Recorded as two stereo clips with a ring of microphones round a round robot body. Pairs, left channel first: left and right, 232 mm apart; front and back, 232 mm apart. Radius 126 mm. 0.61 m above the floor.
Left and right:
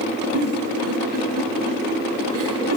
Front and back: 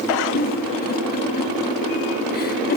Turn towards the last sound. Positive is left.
turn(degrees=-50)